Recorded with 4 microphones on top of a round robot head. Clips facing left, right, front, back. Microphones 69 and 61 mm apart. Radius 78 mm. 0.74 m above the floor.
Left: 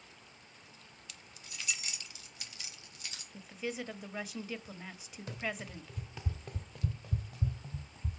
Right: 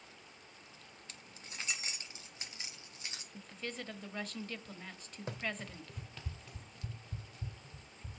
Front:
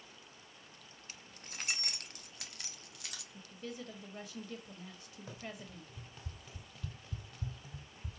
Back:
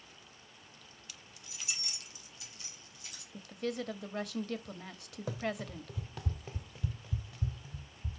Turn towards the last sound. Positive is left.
turn(degrees=75)